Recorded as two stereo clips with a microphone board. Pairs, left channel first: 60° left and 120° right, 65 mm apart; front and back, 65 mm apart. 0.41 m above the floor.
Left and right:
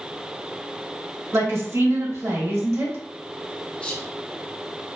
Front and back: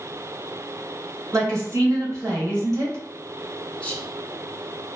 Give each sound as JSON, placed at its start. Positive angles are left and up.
{"t": 1.3, "sound": "a woman speaking", "azimuth_deg": -150, "distance_m": 1.9}
{"t": 3.8, "sound": "whispering", "azimuth_deg": 20, "distance_m": 0.8}